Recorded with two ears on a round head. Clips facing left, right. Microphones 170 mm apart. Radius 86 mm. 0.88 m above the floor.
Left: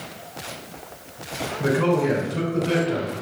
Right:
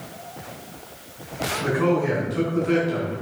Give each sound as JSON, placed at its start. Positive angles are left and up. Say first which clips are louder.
{"t": 1.6, "sound": "a man speaking", "louder": "left 1 dB", "side_deg": 45, "distance_m": 3.0}